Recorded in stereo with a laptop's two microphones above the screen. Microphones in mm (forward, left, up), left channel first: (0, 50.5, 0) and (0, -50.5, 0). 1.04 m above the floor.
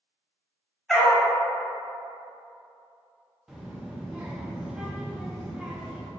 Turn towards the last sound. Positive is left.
turn(degrees=-5)  # may be behind; listen again after turning